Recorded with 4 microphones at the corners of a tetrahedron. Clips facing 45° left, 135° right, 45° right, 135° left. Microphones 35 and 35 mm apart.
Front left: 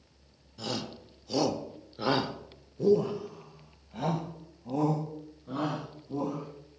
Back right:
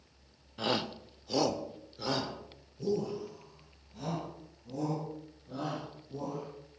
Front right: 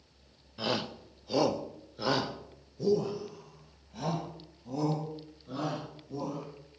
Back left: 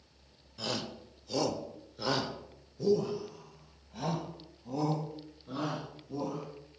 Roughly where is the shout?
Right.